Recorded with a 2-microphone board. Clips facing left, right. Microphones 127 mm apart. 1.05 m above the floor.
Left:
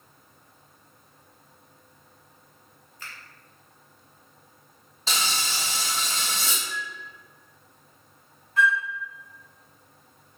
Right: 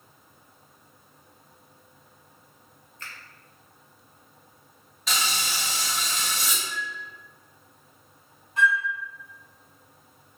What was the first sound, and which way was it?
A finger snap, 10° left (ahead or behind).